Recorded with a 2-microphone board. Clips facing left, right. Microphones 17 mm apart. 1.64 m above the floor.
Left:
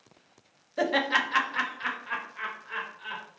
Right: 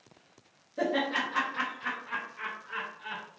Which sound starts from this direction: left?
Laughter, at 0.8 s.